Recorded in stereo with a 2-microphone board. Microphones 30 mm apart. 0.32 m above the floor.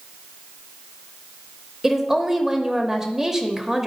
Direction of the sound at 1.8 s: 15° right (ahead or behind).